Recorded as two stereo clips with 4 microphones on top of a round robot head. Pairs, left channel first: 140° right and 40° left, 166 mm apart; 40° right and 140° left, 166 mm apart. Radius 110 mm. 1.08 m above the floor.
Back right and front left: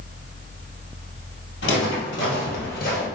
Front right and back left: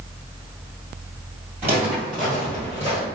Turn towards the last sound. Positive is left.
turn(degrees=-110)